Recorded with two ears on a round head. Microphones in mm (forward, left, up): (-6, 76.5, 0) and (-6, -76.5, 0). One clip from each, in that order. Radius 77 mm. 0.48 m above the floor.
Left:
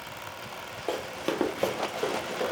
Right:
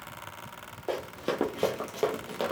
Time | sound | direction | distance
0.9 | running footsteps | 40° left (ahead or behind) | 0.7 m